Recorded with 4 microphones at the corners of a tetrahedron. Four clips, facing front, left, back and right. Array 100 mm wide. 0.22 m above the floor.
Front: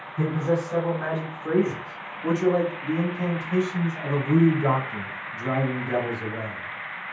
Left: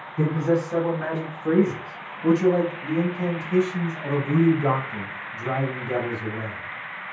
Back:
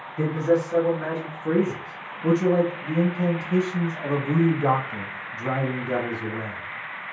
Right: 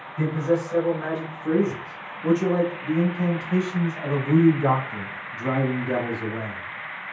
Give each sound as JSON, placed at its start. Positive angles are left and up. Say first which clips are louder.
{"t": 0.2, "sound": "a man speaking", "louder": "left 1 dB, back 3 dB", "azimuth_deg": 60, "distance_m": 1.9}